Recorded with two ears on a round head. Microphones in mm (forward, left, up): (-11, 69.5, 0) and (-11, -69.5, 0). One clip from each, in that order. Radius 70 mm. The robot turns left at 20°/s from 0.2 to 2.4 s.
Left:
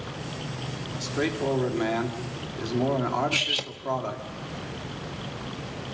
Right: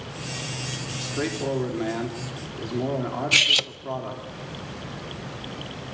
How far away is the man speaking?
About 3.5 m.